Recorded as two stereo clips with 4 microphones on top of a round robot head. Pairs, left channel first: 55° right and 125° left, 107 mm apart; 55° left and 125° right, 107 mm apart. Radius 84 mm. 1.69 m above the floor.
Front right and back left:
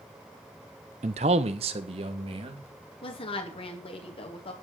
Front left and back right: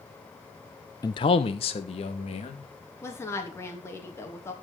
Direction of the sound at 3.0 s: 15° right.